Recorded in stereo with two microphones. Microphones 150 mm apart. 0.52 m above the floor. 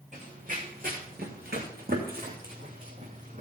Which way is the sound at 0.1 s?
55° right (ahead or behind).